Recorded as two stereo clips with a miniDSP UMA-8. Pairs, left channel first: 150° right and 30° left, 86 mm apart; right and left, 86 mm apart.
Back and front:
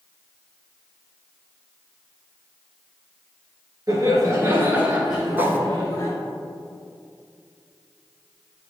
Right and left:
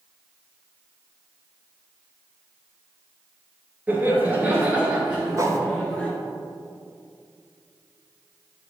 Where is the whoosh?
80° left, 0.6 m.